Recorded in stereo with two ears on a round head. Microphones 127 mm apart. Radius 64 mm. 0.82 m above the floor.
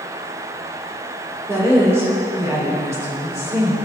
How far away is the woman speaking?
About 2 m.